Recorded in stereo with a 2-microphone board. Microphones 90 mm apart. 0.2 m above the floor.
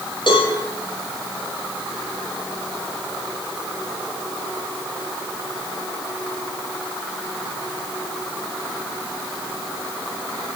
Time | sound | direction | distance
0.3 | a cowbell | 60° left (ahead or behind) | 6 m